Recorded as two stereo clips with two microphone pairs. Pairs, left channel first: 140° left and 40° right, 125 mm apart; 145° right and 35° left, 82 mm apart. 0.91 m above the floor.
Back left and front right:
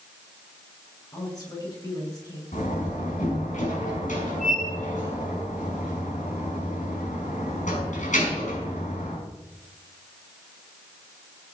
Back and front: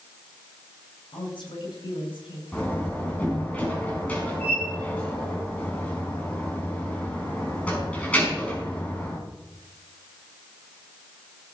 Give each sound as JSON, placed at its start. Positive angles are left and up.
{"t": 1.1, "sound": "a woman speaking", "azimuth_deg": -160, "distance_m": 9.5}
{"t": 2.5, "sound": "a door slam", "azimuth_deg": 140, "distance_m": 5.5}